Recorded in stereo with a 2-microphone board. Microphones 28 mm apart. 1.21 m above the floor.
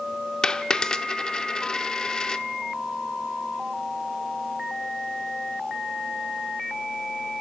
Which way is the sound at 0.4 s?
25° left (ahead or behind).